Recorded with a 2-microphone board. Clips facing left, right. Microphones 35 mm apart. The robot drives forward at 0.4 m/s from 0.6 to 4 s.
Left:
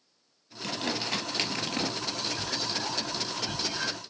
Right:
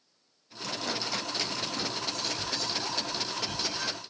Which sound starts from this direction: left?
Crumpling, at 0.6 s.